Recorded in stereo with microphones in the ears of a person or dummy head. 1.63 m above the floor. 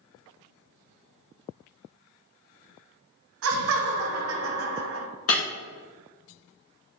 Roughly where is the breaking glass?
Left.